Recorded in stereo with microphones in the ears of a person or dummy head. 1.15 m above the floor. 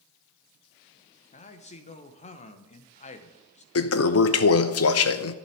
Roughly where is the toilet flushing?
Left.